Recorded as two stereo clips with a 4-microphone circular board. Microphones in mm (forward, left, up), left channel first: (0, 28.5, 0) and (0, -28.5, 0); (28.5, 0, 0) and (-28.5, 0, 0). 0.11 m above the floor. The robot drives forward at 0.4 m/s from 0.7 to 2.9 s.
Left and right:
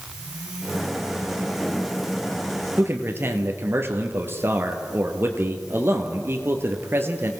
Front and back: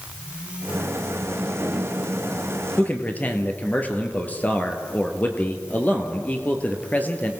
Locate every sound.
2.8 s a man speaking: 50° right, 2.5 m; by 7.3 s 55° right, 2.5 m